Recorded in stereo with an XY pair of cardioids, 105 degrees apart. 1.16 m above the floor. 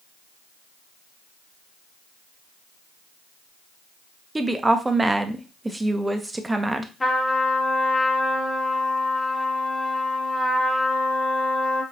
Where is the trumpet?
20° left, 0.9 m.